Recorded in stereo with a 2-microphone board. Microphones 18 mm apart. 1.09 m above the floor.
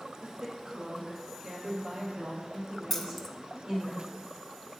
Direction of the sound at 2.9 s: 10° left (ahead or behind).